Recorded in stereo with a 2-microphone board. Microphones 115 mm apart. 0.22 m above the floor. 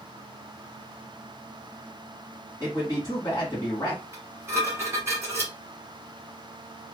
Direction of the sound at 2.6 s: 30° left (ahead or behind).